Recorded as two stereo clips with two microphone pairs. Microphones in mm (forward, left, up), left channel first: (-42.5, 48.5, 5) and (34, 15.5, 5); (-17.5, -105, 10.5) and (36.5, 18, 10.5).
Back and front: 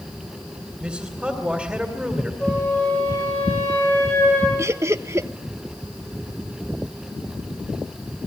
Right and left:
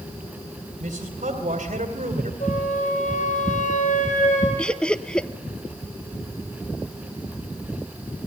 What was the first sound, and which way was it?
A man speaking, 55° left.